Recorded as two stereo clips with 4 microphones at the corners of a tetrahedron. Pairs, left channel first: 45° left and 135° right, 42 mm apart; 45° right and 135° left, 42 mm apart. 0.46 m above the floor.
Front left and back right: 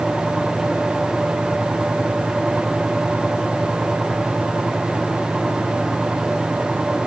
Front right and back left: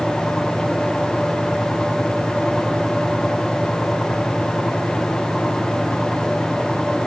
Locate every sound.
Only background noise.